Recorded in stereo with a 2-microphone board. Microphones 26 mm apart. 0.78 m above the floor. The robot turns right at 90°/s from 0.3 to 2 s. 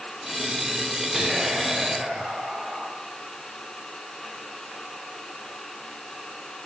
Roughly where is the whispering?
Behind right.